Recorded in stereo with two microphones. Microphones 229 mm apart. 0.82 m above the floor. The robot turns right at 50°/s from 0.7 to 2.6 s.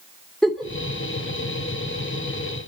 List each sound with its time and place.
0.4 s a giggle: centre (ahead or behind), 3 m